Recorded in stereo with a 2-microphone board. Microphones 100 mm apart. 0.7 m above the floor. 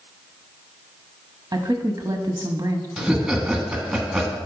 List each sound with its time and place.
1.5 s a woman speaking: 35° right (ahead or behind), 0.9 m
3.0 s laughter: 5° right (ahead or behind), 1.3 m